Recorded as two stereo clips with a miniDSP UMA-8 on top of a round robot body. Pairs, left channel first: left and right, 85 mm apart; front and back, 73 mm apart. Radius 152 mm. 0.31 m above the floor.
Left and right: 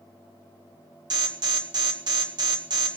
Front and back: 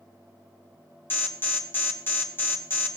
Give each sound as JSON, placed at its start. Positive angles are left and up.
{"t": 1.1, "sound": "an alarm", "azimuth_deg": -60, "distance_m": 1.9}